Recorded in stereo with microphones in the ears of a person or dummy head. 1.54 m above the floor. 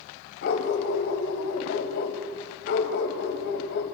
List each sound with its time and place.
0.4 s a dog barking: 55° left (ahead or behind), 2.5 m